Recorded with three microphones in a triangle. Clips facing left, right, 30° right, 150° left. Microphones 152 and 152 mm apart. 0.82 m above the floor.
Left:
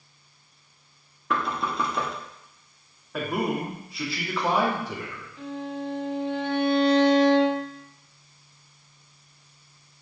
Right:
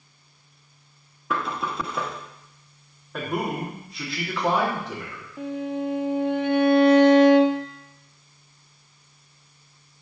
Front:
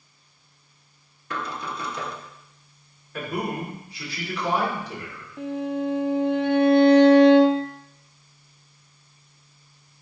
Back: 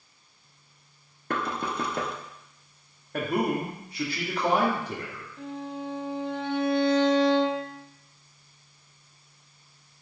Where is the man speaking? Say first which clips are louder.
Left 1 dB, back 3 dB; straight behind, 2 m.